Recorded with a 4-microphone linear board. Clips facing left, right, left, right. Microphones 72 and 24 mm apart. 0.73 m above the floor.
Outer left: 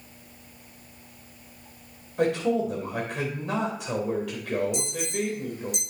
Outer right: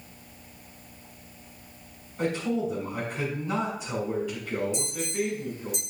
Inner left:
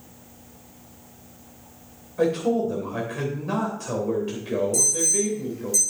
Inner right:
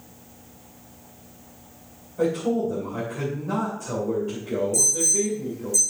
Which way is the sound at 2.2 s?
75° left (ahead or behind).